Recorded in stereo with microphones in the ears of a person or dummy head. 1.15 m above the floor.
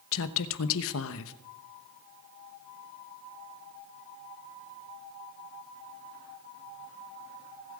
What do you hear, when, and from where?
0.1 s a woman speaking: 75° left (ahead or behind), 1.0 m